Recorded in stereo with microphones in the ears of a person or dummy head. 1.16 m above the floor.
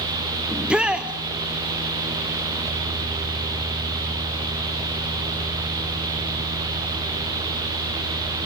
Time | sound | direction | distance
0.5 | a shout | 5° right (ahead or behind) | 1.0 m